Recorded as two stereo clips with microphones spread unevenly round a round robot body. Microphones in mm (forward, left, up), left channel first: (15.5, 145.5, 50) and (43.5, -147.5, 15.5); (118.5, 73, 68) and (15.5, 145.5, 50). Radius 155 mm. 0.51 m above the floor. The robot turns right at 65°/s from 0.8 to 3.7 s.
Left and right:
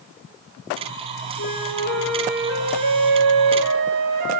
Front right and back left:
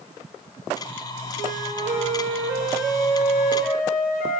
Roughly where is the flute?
Behind left.